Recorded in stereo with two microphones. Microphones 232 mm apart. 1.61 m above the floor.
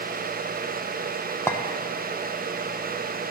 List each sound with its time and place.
1.5 s a clink: 10° left (ahead or behind), 0.8 m